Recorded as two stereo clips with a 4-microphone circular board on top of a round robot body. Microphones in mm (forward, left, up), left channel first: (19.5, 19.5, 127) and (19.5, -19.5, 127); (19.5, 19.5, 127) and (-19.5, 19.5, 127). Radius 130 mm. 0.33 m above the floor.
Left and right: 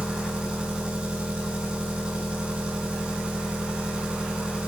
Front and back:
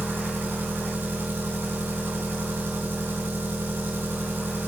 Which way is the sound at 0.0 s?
155° right.